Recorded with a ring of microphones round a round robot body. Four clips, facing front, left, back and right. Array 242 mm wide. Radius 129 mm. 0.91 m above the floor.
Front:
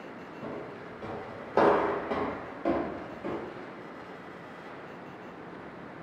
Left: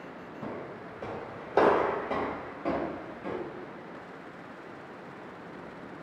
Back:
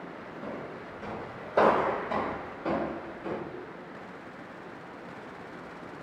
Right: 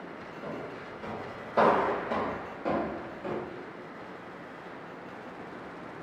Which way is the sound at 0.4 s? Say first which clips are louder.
Even, even; 90° left.